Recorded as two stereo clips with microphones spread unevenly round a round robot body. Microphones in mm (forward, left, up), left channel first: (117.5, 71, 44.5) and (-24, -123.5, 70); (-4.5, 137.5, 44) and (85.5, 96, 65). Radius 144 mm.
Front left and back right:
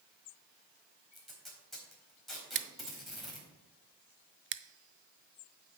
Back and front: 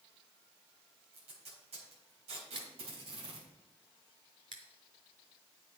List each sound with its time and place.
1.1 s tape being pulled: 35° right, 4 m
2.5 s scissors: 80° right, 0.6 m